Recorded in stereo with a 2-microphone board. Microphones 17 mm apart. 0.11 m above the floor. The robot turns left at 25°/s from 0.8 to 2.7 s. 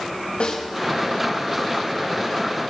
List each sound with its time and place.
0.4 s a snare drum: 80° left, 6.5 m